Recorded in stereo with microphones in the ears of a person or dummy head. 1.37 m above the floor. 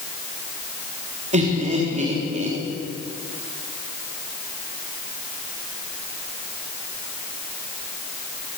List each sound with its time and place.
1.3 s laughter: 35° right (ahead or behind), 3.5 m